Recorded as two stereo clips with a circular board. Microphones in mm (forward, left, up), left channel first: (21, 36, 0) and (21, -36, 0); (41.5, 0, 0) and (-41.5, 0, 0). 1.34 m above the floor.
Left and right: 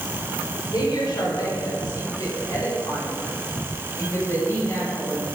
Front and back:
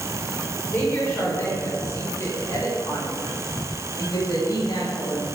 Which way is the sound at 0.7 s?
70° left.